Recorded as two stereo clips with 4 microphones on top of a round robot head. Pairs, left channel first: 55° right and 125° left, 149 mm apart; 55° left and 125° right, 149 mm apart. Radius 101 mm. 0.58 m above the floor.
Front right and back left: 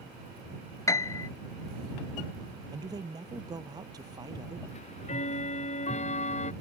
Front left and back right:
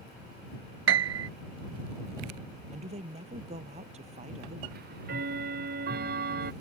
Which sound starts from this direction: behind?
A man speaking, at 2.7 s.